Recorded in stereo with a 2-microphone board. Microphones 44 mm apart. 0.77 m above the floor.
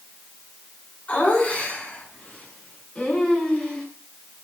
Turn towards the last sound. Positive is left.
turn(degrees=20)  # may be behind; listen again after turning